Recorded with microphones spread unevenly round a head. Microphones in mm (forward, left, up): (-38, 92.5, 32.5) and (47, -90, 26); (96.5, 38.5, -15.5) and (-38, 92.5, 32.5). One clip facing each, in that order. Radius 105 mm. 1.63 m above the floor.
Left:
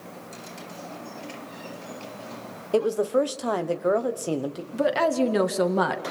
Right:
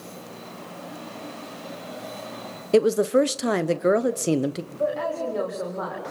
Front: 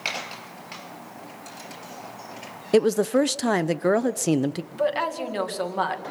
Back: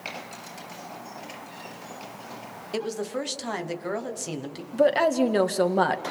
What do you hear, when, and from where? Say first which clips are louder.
2.7 s a woman speaking: right 4 dB, front 11 dB; straight ahead, 1.1 m
4.7 s a woman speaking: left 8 dB, back 8 dB; 120° left, 2 m